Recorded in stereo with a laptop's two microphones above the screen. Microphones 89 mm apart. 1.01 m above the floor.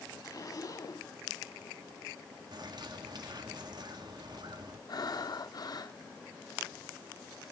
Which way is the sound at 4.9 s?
50° left (ahead or behind).